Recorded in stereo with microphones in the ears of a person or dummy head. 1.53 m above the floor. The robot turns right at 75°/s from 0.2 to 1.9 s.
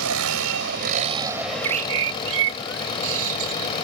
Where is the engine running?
95° right; by 3.9 s 30° left.